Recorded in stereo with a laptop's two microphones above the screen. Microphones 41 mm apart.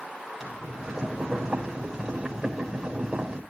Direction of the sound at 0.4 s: Centre (ahead or behind).